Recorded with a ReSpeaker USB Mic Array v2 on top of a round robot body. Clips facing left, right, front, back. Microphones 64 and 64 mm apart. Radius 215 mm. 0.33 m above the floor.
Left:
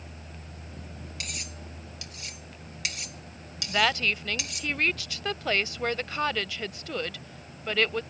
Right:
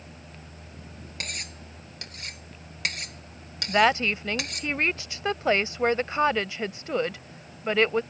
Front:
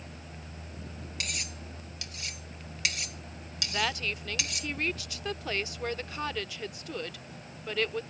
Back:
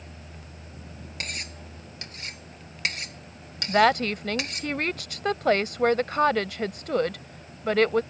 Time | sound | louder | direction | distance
1.2 | cutlery clinking | right 4 dB, back 3 dB | 130° right | ?
3.7 | a woman speaking | right 4 dB, back 12 dB | 155° right | ?